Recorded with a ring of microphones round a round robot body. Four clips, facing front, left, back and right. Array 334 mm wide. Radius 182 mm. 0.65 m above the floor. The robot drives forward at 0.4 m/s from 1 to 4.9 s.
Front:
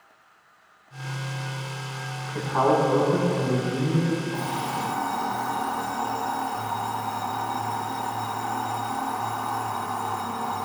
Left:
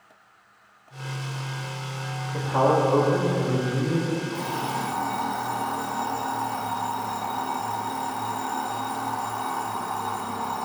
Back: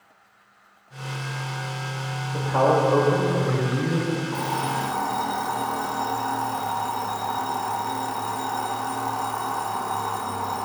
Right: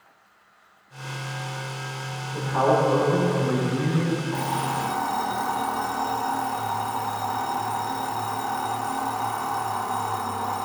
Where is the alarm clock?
155° right, 1.6 m; by 10.6 s 160° right, 1.8 m.